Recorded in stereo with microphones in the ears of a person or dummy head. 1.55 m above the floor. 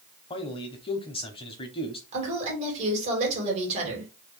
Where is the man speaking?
25° left (ahead or behind), 0.7 m.